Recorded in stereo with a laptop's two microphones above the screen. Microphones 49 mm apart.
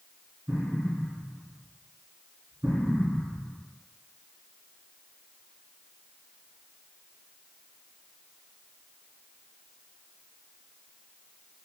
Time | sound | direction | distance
0.5 | an explosion | 55° right (ahead or behind) | 1.9 m